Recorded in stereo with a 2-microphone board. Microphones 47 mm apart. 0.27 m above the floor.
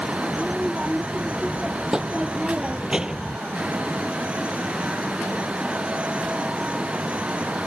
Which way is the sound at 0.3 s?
10° right (ahead or behind).